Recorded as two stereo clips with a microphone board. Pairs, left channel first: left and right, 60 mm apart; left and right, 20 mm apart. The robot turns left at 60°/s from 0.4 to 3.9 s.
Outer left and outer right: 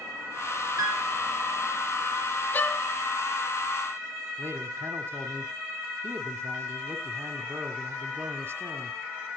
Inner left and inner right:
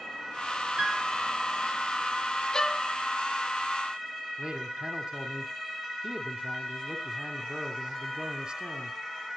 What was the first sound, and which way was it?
A piano, 70° right (ahead or behind).